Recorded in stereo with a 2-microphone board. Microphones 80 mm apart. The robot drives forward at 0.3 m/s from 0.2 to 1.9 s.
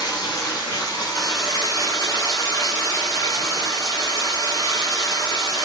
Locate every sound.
0.0 s running water: 65° left (ahead or behind), 1.4 m; by 5.6 s 50° left (ahead or behind), 1.6 m